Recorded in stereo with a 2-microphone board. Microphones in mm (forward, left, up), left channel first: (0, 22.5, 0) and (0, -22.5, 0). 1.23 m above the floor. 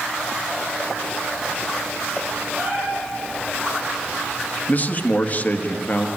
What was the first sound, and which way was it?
A cat meowing, 60° right (ahead or behind).